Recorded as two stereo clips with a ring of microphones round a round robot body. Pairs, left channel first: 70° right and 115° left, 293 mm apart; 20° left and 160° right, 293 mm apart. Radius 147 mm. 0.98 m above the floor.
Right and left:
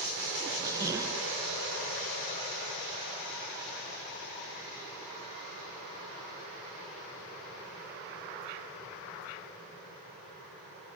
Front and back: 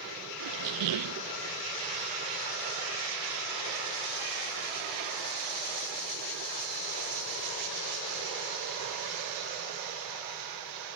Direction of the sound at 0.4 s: 170° right.